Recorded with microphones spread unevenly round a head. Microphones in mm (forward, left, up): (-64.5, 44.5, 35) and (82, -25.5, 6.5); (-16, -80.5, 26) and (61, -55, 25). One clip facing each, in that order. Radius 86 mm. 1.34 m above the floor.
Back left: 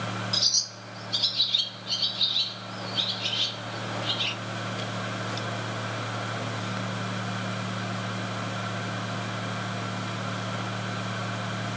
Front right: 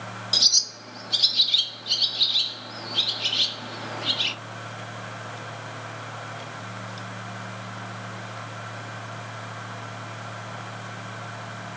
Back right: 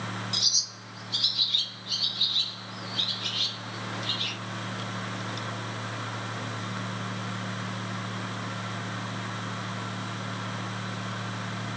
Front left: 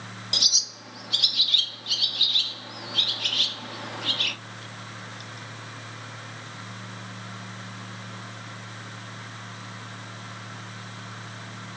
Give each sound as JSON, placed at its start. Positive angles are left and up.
{"t": 0.3, "sound": "a bird", "azimuth_deg": -5, "distance_m": 0.5}